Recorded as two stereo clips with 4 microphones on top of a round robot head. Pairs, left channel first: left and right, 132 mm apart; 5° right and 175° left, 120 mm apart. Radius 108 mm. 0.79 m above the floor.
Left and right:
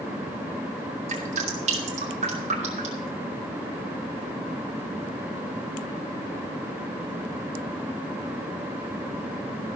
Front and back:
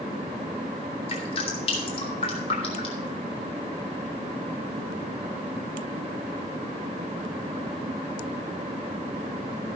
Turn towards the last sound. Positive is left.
turn(degrees=-50)